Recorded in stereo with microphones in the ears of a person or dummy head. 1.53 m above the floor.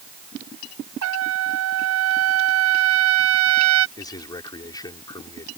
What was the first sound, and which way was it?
A trumpet, 75° right (ahead or behind).